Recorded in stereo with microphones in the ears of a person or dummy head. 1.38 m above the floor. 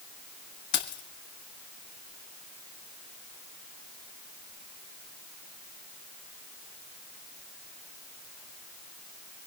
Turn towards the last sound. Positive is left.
turn(degrees=50)  # may be behind; listen again after turning